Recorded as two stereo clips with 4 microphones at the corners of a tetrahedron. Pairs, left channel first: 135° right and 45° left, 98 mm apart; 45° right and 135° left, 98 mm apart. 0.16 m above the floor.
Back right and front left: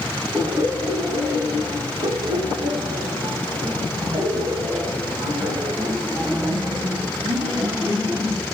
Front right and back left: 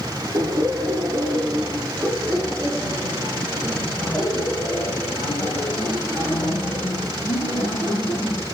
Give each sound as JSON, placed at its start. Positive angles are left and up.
{"t": 0.3, "sound": "laughter", "azimuth_deg": 100, "distance_m": 2.5}